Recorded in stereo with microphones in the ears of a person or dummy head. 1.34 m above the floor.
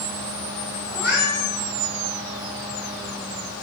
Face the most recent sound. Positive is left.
turn(degrees=-15)  # may be behind; listen again after turning